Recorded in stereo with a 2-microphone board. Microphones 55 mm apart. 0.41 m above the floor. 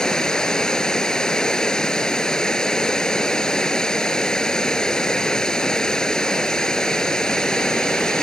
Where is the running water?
15° left (ahead or behind).